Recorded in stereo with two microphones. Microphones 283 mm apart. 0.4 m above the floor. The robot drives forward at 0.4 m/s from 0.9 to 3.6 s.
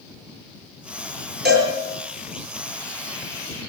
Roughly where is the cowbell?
Right.